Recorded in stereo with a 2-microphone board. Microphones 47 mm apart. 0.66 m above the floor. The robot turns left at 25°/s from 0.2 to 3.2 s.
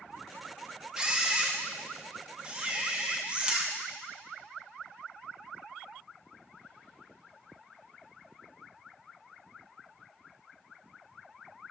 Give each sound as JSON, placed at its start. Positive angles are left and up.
{"t": 1.0, "sound": "a camera shutter", "side_deg": -15, "distance_m": 0.6}